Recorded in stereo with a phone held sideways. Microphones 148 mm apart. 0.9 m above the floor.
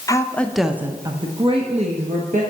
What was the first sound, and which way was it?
A woman speaking, 20° left (ahead or behind).